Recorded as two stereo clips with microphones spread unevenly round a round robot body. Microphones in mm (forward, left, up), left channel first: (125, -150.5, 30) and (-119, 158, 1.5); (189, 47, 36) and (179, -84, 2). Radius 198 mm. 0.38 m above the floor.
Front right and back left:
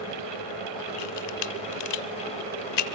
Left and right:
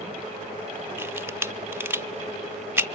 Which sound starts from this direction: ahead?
A camera shutter, at 1.0 s.